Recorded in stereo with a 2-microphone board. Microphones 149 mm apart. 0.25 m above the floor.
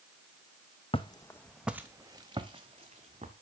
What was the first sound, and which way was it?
Footsteps, 40° left (ahead or behind).